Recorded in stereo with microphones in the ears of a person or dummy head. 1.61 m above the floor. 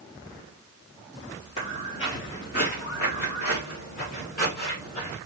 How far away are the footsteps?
About 2.5 m.